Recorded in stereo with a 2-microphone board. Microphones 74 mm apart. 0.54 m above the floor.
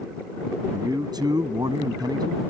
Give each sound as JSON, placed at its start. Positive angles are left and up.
{"t": 0.7, "sound": "a man speaking", "side_deg": -70}